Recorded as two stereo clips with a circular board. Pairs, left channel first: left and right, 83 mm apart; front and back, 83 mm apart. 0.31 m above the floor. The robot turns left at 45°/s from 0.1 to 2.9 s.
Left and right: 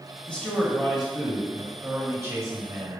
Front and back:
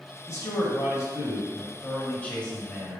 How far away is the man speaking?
About 1.2 m.